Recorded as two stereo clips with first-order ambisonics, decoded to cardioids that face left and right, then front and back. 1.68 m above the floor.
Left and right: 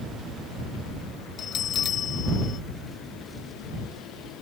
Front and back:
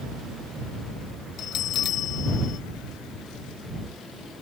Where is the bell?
40° left.